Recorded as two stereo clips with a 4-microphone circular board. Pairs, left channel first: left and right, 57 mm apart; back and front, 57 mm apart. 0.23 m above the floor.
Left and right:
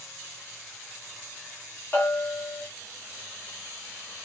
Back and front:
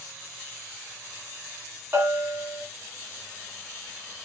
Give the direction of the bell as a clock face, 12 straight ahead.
11 o'clock.